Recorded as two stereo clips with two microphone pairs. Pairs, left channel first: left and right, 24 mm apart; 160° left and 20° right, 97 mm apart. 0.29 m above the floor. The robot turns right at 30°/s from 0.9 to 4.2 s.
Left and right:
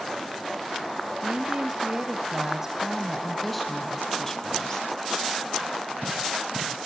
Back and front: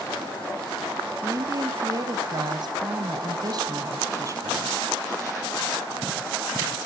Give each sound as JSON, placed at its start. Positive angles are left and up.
{"t": 1.2, "sound": "a woman speaking", "azimuth_deg": -70, "distance_m": 1.9}